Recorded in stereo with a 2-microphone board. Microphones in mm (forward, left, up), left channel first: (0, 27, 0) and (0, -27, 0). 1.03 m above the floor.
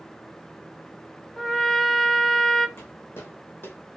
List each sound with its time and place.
1.4 s a trumpet: 5° left (ahead or behind), 0.5 m
2.8 s footsteps: 50° left (ahead or behind), 2.5 m; by 3.8 s 45° left (ahead or behind), 1.4 m